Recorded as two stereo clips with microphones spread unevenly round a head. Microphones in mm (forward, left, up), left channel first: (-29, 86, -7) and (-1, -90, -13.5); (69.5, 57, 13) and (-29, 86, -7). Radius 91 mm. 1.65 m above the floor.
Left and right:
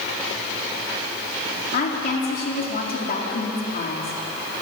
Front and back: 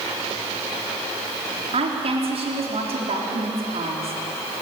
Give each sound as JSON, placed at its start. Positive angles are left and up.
{"t": 1.7, "sound": "a woman speaking", "azimuth_deg": 140, "distance_m": 4.0}